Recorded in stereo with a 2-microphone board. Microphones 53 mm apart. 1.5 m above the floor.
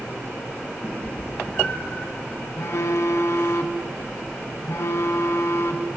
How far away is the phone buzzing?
About 0.9 m.